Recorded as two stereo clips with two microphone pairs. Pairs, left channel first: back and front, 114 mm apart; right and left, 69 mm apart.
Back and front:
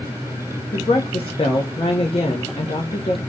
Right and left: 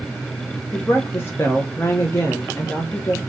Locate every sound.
0.7 s a woman speaking: 145° right, 1.0 m